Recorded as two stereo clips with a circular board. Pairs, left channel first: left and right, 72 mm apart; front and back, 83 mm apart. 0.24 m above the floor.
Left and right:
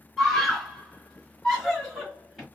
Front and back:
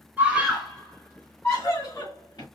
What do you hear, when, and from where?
0.2 s a scream: 165° left, 1.5 m; by 2.5 s 5° left, 2.5 m